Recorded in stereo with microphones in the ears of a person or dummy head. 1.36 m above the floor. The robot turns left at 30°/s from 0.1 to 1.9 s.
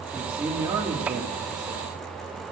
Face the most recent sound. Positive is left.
turn(degrees=-55)